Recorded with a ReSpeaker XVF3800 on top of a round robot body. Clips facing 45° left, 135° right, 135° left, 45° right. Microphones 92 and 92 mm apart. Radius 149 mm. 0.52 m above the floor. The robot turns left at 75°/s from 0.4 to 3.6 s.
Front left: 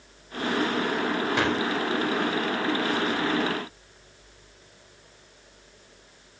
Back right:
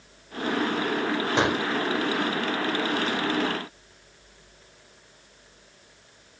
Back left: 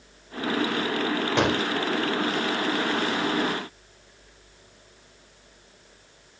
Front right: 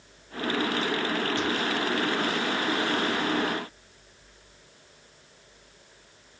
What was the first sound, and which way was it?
A gunshot, 160° left.